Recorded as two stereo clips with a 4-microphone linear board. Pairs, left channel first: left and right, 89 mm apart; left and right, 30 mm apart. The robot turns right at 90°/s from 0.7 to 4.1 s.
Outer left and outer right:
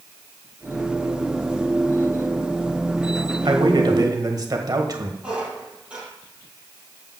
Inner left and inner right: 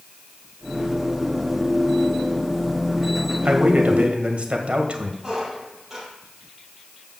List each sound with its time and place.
3.5 s a man speaking: 115° right, 1.6 m; by 5.1 s 55° right, 1.6 m
5.2 s a squeak: 10° right (ahead or behind), 4 m